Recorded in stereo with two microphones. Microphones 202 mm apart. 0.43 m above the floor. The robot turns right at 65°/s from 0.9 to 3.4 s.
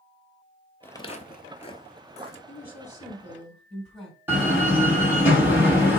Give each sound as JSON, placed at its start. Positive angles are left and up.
{"t": 0.8, "sound": "footsteps", "side_deg": 10, "distance_m": 0.6}
{"t": 2.5, "sound": "a woman speaking", "azimuth_deg": 120, "distance_m": 3.0}
{"t": 4.3, "sound": "a door slam", "side_deg": -10, "distance_m": 2.5}